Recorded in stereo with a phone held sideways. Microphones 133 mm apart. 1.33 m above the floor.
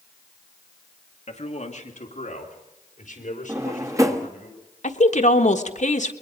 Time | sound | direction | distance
1.3 | a man speaking | 60° left (ahead or behind) | 2 m
3.5 | a drawer | 25° right (ahead or behind) | 1.1 m
4.8 | a woman speaking | 65° left (ahead or behind) | 1.3 m